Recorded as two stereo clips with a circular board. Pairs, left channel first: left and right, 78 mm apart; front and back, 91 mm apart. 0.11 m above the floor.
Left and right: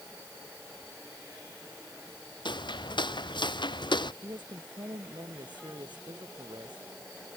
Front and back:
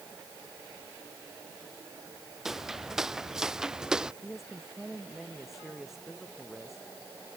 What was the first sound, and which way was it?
Footsteps, 95° left.